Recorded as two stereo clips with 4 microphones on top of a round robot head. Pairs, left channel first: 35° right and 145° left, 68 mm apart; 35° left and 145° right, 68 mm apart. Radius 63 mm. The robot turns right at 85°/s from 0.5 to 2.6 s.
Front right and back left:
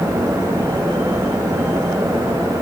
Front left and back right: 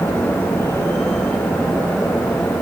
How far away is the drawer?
I don't hear a drawer.